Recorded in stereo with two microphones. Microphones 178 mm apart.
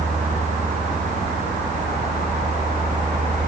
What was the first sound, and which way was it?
Only background noise.